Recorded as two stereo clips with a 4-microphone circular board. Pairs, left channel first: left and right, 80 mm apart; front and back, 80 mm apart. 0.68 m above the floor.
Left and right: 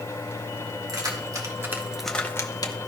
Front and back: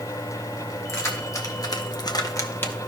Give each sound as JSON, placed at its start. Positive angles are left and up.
{"t": 0.9, "sound": "keys jangling", "azimuth_deg": -55, "distance_m": 2.0}